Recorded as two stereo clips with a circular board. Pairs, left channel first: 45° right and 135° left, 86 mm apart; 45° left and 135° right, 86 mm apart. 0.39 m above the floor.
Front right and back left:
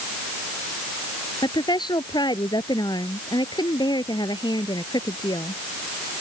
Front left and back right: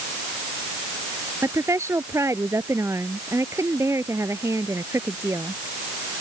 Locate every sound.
1.4 s a woman speaking: 80° right